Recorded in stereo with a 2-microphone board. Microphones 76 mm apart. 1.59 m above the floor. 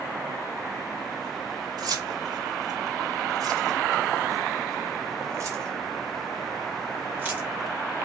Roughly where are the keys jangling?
Right.